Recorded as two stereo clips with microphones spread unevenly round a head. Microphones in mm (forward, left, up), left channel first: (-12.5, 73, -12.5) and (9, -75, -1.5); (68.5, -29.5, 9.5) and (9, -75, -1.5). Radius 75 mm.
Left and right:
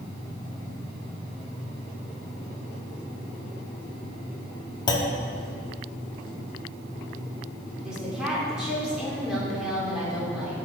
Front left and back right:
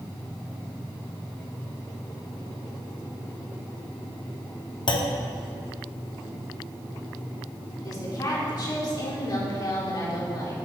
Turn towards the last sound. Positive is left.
turn(degrees=5)